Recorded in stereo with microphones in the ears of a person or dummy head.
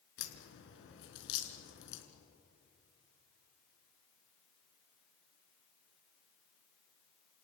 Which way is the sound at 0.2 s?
70° left (ahead or behind).